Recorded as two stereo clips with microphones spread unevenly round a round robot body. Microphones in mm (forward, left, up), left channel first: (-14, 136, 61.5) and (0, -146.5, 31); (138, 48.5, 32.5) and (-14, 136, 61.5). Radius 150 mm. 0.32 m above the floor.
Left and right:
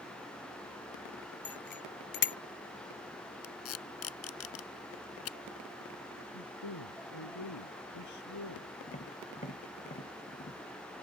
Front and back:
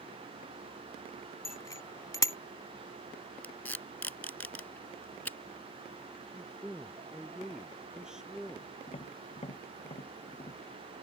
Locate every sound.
1.4 s a bicycle bell: 40° left
3.4 s tape being pulled: 50° left
6.3 s a man speaking: 65° left
8.9 s tapping: 25° left